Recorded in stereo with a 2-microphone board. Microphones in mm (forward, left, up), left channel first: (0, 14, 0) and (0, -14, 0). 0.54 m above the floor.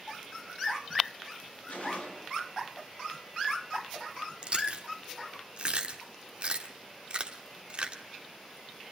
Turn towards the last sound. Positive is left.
turn(degrees=-45)  # may be behind; listen again after turning